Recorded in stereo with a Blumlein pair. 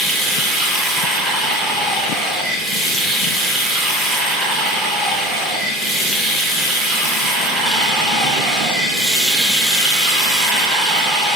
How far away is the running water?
About 1.0 m.